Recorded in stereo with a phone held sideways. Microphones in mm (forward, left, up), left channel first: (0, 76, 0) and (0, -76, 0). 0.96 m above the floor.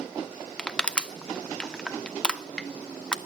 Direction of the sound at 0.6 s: 5° left (ahead or behind).